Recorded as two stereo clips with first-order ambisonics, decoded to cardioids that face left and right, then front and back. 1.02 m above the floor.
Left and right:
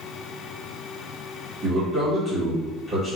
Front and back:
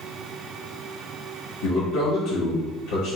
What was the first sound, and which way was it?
A man speaking, 5° right.